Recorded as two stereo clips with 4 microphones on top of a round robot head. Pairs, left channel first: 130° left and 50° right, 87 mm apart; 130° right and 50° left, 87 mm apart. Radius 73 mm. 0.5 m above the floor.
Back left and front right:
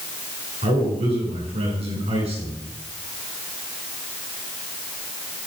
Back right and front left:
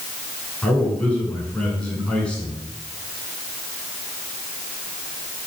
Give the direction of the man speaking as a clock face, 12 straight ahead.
2 o'clock.